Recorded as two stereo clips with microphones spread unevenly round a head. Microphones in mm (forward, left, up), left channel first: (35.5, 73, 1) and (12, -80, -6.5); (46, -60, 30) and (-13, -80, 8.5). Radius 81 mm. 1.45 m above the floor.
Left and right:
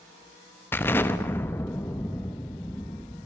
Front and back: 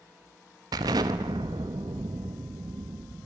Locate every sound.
0.7 s an explosion: 150° left, 0.9 m